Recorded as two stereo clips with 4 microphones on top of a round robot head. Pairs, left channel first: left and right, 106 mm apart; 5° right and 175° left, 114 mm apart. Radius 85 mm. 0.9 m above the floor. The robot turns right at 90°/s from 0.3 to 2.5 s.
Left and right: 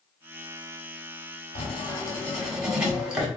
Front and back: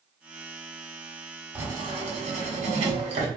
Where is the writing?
105° left, 1.0 m; by 3.3 s 170° right, 1.0 m.